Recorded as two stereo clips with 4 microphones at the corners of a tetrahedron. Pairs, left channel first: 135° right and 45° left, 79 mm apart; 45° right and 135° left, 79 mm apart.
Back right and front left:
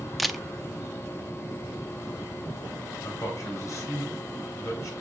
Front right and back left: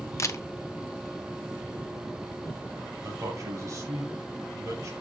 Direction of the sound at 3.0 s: Straight behind.